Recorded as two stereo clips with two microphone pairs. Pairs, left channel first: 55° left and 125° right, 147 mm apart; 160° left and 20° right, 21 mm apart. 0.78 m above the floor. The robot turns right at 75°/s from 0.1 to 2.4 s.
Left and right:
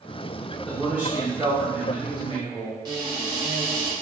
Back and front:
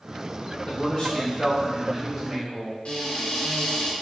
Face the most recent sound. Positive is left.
turn(degrees=175)